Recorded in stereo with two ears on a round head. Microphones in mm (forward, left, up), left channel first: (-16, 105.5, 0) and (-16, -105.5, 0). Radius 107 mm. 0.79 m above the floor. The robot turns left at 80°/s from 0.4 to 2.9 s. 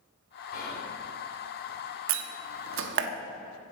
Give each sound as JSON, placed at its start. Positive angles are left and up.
{"t": 0.5, "sound": "whispering", "azimuth_deg": 140, "distance_m": 3.0}
{"t": 2.1, "sound": "a door slam", "side_deg": -55, "distance_m": 1.0}